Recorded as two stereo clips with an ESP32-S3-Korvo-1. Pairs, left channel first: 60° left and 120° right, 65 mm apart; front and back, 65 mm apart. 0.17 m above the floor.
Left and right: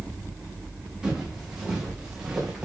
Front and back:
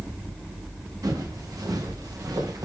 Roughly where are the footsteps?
Behind.